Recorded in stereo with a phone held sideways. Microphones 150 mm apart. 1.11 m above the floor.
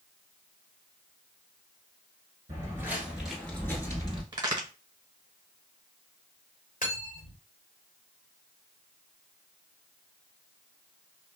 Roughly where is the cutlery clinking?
Left.